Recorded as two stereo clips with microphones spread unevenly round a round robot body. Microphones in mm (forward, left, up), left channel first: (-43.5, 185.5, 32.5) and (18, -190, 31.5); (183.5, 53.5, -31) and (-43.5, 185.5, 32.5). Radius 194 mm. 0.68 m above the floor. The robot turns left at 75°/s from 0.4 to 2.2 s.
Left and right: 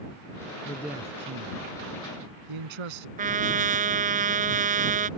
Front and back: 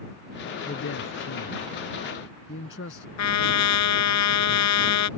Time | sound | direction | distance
0.7 | a man speaking | 25° left | ?
3.2 | a trumpet | 10° right | ?